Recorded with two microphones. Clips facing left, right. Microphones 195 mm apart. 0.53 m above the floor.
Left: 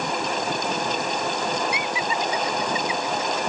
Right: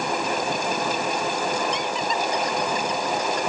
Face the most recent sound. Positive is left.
turn(degrees=5)  # may be behind; listen again after turning